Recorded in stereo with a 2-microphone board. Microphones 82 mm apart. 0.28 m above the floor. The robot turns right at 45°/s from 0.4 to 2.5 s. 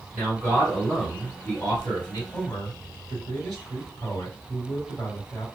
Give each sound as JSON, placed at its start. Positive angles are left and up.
{"t": 0.1, "sound": "a man speaking", "azimuth_deg": -30, "distance_m": 1.5}
{"t": 2.3, "sound": "a man speaking", "side_deg": 20, "distance_m": 1.9}